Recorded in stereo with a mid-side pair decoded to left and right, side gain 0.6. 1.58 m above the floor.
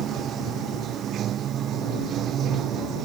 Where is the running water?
50° right.